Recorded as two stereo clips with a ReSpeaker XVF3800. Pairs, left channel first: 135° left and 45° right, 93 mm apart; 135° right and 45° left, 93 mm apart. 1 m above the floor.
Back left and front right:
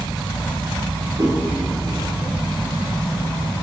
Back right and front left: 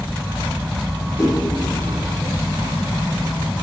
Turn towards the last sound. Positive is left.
turn(degrees=-85)